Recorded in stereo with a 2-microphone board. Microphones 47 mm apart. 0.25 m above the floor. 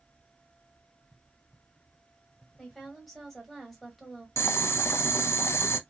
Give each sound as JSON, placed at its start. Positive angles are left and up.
{"t": 2.6, "sound": "a woman speaking", "side_deg": 0, "distance_m": 1.1}
{"t": 4.4, "sound": "boiling", "side_deg": 70, "distance_m": 0.5}